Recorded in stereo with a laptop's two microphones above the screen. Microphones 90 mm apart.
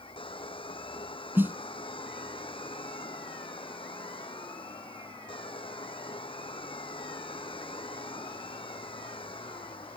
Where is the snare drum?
20° right (ahead or behind).